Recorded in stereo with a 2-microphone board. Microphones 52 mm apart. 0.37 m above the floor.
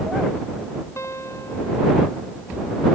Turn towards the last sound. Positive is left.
turn(degrees=60)  # may be behind; listen again after turning